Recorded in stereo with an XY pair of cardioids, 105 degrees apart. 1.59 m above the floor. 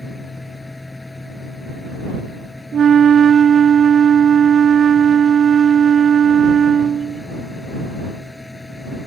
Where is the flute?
50° right.